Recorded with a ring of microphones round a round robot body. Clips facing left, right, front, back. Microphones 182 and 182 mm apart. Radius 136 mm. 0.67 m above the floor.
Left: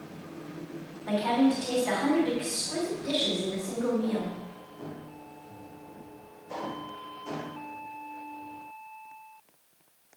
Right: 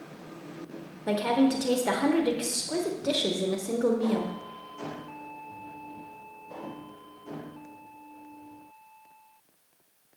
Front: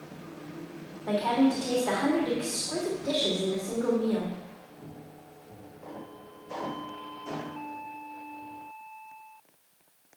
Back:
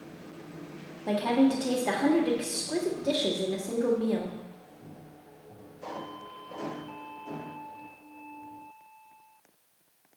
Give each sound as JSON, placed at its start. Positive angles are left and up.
{"t": 1.1, "sound": "a woman speaking", "azimuth_deg": -115, "distance_m": 1.2}